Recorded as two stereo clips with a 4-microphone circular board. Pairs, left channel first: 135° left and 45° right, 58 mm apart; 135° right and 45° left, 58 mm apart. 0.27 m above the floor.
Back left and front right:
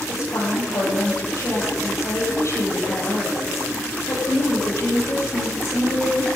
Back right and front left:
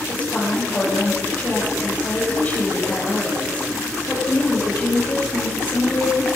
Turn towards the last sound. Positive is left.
turn(degrees=165)